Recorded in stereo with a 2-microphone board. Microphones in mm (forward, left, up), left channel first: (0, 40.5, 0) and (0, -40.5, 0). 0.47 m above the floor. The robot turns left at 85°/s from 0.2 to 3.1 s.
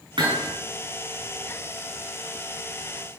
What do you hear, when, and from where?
0.2 s hammering: 75° right (ahead or behind), 5.5 m; by 0.5 s 70° right (ahead or behind), 5.5 m